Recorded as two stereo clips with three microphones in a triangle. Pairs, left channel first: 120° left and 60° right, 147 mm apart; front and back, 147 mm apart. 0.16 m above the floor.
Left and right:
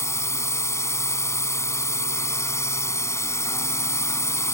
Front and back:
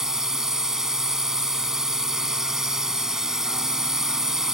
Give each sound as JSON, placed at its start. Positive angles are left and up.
{"t": 0.0, "sound": "a drone", "azimuth_deg": 100}